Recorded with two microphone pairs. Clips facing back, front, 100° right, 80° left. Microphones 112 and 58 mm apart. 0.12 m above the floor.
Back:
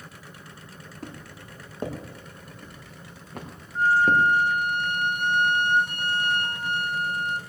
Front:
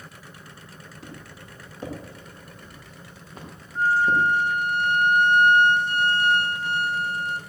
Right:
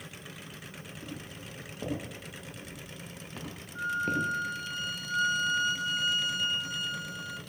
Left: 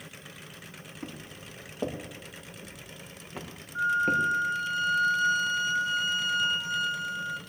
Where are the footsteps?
140° left, 4.5 m; by 4.2 s 165° left, 4 m.